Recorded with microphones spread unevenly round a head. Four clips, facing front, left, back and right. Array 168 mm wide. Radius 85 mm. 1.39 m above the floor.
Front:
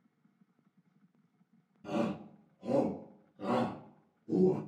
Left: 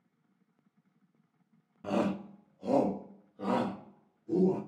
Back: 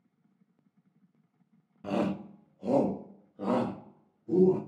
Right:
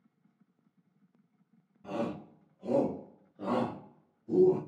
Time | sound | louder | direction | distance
1.8 | a shout | left 4 dB, back 4 dB | 125° left | 0.6 m